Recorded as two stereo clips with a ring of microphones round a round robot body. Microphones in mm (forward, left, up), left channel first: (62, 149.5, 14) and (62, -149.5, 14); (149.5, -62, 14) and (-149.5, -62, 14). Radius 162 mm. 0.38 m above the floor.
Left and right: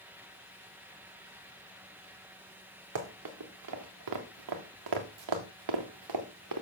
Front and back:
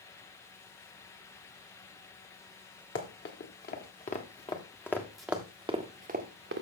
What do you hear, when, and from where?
3.0 s running footsteps: 50° right, 2.5 m; by 6.6 s 130° right, 1.6 m